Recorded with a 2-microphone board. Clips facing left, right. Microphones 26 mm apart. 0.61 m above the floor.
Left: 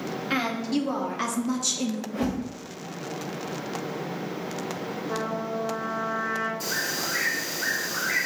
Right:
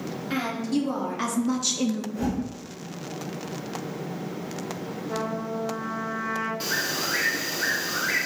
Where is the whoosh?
65° left (ahead or behind), 1.1 m.